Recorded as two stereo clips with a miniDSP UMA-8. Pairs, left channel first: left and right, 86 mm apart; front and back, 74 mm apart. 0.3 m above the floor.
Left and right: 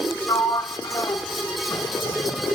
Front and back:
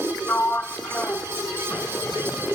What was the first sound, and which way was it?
A sliding door, 65° left.